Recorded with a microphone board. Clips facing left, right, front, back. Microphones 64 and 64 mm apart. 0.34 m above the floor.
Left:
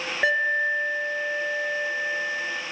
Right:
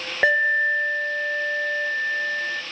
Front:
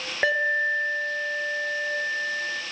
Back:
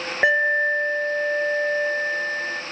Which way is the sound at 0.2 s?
105° right.